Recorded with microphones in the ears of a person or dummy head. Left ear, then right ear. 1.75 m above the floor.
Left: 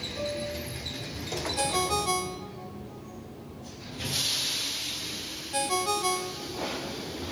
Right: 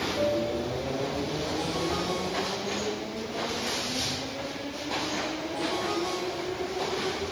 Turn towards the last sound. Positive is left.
turn(degrees=55)  # may be behind; listen again after turning